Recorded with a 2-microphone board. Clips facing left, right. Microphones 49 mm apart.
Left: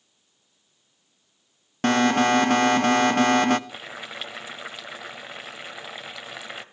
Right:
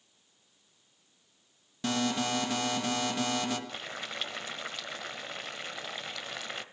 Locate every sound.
1.8 s an alarm: 55° left (ahead or behind), 1.1 m
3.7 s boiling: 10° left (ahead or behind), 1.2 m